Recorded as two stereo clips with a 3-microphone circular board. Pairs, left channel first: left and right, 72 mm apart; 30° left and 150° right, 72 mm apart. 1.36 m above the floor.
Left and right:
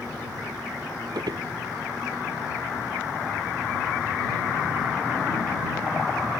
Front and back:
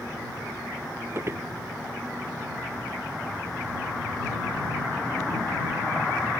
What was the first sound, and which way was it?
Footsteps, 100° right.